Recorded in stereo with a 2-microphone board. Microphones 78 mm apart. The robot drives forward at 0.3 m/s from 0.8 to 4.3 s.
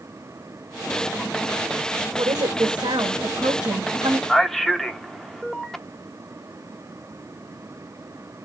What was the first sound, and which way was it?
A woman speaking, 70° right (ahead or behind).